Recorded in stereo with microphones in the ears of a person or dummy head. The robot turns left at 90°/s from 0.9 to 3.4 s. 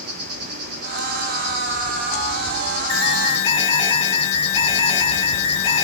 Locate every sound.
0.0 s an insect: 95° right, 2.5 m; by 5.8 s 40° left, 2.5 m
2.9 s an alarm: 70° left, 5 m; by 5.8 s 25° left, 5 m